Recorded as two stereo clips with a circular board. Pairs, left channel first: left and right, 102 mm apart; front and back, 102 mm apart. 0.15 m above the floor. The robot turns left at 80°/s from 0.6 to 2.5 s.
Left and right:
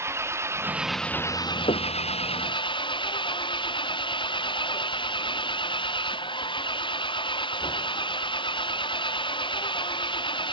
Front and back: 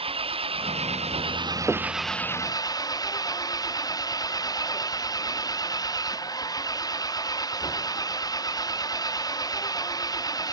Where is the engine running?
155° right; by 10.5 s 55° left.